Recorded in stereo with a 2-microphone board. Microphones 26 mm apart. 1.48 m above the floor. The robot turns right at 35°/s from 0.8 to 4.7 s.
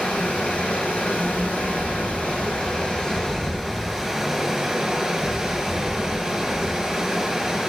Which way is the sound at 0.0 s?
65° left.